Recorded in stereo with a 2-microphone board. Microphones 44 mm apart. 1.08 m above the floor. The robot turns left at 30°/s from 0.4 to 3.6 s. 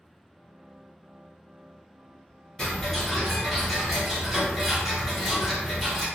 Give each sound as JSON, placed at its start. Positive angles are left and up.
{"t": 2.6, "sound": "ticking", "azimuth_deg": 25, "distance_m": 1.6}